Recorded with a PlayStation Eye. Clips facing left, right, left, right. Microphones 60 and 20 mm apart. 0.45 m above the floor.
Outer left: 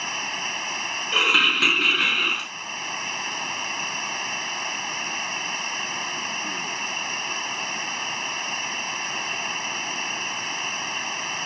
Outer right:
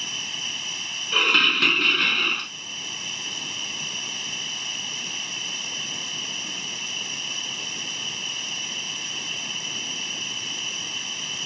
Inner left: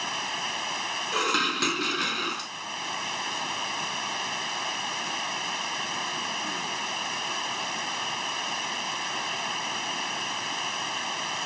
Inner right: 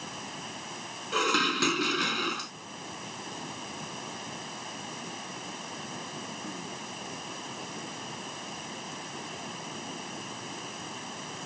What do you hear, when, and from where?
0.0 s running water: 45° left (ahead or behind)
1.1 s dishes clattering: 5° left (ahead or behind)